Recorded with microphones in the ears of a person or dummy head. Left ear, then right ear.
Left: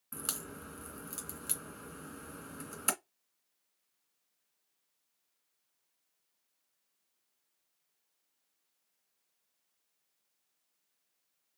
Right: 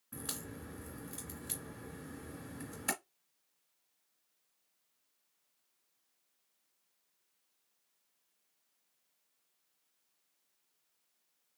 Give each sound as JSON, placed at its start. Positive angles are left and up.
{"t": 0.1, "sound": "a crack", "side_deg": 40, "distance_m": 2.5}